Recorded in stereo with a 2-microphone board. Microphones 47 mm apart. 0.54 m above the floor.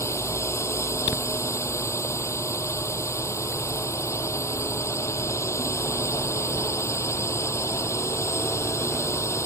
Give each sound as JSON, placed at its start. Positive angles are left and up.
{"t": 0.0, "sound": "a drone", "side_deg": 80}